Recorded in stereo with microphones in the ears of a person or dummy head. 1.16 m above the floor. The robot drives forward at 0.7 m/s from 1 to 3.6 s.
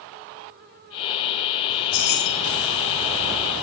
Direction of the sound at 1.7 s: 65° left (ahead or behind).